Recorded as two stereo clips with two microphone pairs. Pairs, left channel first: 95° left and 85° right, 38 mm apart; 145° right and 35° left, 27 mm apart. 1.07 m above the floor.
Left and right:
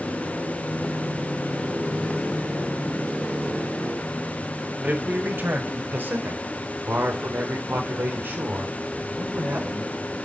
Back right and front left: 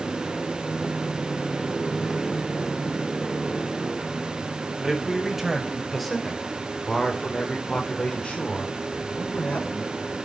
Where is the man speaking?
40° right, 6 m; by 9.9 s 125° right, 5.5 m.